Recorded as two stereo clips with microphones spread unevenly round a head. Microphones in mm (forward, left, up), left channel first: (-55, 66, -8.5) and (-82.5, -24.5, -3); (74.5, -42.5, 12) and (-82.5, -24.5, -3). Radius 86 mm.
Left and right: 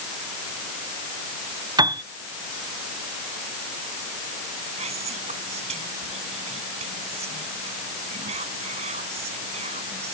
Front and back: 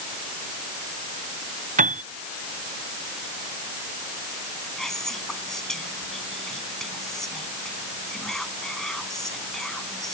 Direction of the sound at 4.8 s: 95° right.